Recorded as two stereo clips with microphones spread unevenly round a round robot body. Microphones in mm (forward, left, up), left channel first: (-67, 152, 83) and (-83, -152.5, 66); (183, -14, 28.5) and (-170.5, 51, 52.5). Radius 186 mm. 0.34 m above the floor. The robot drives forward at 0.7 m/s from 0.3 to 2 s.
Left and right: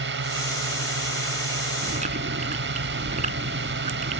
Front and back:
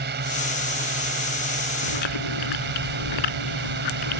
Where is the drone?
130° right; by 4.2 s 135° right.